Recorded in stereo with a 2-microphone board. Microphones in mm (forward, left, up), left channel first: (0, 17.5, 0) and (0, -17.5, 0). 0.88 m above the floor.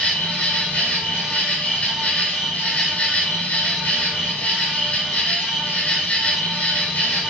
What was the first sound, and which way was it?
An insect, 40° left (ahead or behind).